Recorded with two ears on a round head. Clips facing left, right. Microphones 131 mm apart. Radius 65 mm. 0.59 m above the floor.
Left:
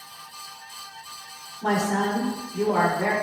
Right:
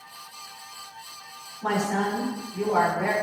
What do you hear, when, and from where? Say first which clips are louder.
1.6 s a woman speaking: left 2 dB; 25° left (ahead or behind), 1.7 m